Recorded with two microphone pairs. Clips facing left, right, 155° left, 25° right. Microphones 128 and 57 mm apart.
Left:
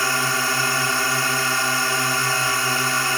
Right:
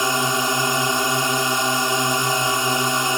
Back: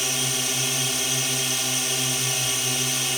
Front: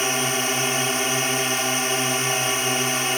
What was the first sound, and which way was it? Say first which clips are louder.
A drone: right 3 dB, front 6 dB; 35° right.